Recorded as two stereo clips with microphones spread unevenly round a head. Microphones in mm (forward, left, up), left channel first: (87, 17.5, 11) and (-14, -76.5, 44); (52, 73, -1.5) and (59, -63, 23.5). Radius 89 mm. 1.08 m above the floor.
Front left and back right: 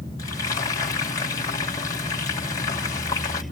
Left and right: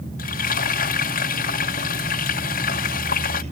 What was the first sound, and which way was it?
Frying, 110° left.